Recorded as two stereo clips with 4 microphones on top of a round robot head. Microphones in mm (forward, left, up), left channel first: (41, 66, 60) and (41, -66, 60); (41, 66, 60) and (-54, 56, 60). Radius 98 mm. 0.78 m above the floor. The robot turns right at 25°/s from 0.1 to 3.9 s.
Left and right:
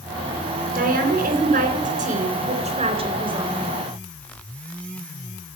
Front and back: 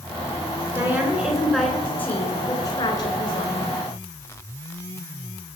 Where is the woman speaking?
100° right, 4 m; by 3.5 s 30° right, 4 m.